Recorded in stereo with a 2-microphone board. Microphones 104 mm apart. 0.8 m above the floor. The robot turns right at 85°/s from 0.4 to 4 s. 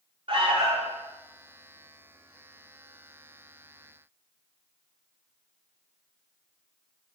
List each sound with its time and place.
0.3 s an alarm: 105° right, 3.5 m; by 1.0 s 60° right, 3.5 m